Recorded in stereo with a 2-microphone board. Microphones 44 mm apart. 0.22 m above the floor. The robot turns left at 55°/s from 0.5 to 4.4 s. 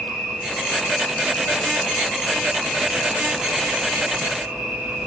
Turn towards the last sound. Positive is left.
turn(degrees=-90)